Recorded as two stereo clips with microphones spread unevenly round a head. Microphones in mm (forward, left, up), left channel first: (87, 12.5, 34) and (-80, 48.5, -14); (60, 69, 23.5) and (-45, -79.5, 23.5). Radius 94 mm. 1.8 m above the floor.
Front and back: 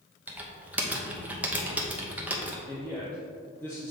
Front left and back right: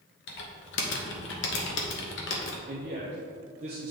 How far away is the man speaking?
About 0.8 m.